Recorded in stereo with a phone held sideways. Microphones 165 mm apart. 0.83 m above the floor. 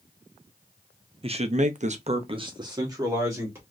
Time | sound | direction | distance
1.2 | a man speaking | 35° right (ahead or behind) | 0.7 m